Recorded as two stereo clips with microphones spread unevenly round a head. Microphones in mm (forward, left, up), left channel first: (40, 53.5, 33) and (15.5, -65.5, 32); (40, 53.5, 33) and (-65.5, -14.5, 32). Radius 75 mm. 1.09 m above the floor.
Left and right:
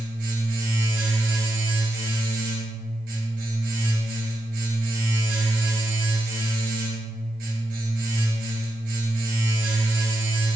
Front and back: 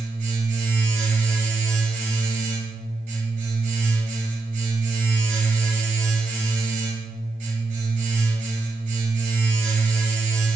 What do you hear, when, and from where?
0.0 s a machine running: 100° right, 3 m